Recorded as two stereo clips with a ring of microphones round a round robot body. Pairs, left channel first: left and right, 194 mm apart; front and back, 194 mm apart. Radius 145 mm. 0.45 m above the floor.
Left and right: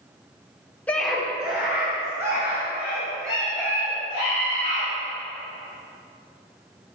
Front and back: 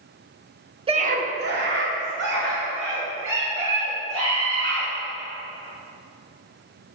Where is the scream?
165° left, 1.0 m; by 4.9 s 165° right, 6 m.